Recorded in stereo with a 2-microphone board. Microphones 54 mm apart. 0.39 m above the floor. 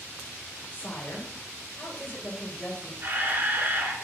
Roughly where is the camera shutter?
Right.